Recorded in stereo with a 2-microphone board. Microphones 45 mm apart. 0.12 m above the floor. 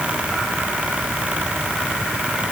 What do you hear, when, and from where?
Only background noise.